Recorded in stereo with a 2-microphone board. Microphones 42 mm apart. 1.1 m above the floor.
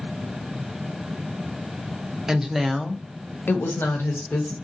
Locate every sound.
2.3 s a woman speaking: 15° right (ahead or behind), 0.7 m; by 4.5 s 85° left, 0.9 m